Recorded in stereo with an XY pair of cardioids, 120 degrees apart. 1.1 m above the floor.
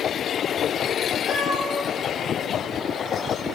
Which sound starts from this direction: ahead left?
A cat meowing, at 1.2 s.